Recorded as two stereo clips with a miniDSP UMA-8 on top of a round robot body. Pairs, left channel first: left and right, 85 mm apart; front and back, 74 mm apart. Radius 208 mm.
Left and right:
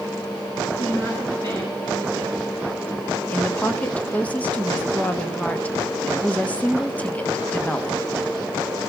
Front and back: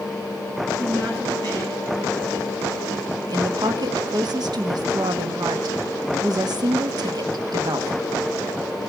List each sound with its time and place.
0.8 s a woman speaking: 150° left, 8 m; by 2.9 s 140° left, 10.5 m
3.3 s a woman speaking: 165° left, 1.3 m